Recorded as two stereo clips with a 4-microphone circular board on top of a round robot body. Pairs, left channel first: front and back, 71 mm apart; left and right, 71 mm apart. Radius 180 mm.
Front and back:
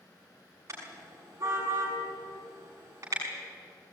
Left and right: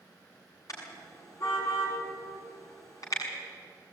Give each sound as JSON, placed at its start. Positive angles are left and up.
{"t": 0.7, "sound": "a car horn", "azimuth_deg": 130, "distance_m": 7.0}